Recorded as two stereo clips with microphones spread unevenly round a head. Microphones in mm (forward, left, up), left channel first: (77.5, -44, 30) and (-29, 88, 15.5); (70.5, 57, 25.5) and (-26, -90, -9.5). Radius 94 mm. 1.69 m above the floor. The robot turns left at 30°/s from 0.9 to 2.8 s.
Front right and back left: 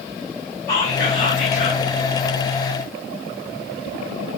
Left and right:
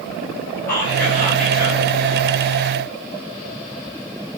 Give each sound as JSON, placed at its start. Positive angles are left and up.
{"t": 0.7, "sound": "whispering", "azimuth_deg": -20, "distance_m": 3.5}